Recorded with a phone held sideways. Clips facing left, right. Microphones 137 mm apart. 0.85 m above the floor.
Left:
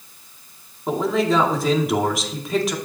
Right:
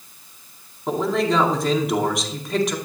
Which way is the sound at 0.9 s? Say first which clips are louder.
Left 1 dB; centre (ahead or behind).